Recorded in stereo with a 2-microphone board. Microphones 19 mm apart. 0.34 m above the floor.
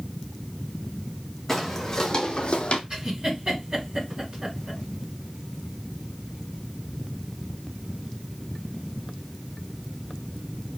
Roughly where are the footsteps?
Centre.